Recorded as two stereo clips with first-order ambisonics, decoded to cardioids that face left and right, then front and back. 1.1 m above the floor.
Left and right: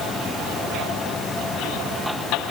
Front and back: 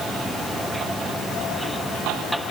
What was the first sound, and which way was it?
Only background noise.